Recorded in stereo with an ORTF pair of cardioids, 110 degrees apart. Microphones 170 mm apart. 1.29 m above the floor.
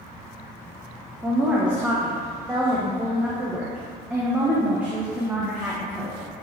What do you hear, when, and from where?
1.2 s a woman speaking: 10° right, 1.0 m